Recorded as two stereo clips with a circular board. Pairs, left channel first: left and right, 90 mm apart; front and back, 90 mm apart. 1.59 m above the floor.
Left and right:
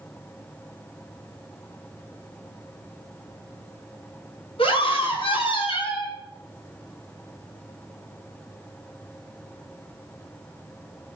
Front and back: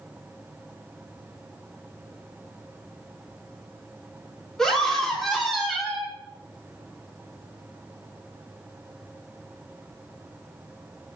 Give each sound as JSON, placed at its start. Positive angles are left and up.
{"t": 4.6, "sound": "a scream", "azimuth_deg": 85, "distance_m": 4.0}